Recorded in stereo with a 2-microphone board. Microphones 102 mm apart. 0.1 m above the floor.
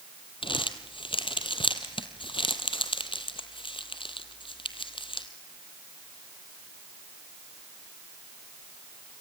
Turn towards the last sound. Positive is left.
turn(degrees=55)  # may be behind; listen again after turning